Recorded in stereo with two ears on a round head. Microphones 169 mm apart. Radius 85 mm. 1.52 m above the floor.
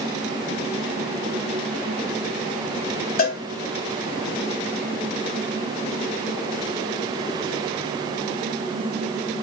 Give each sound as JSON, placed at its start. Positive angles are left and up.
{"t": 3.2, "sound": "a cowbell", "side_deg": 45, "distance_m": 0.9}